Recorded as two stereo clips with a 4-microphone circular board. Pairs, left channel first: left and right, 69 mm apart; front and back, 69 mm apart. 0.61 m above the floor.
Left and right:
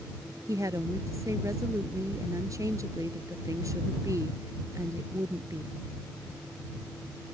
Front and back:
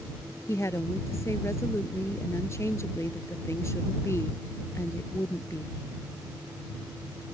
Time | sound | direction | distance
0.5 | a woman speaking | 50° right | ?